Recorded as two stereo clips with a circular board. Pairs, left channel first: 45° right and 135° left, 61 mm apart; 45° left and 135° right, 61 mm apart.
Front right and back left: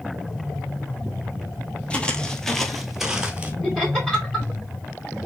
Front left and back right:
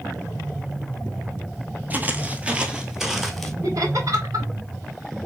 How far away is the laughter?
About 2.5 m.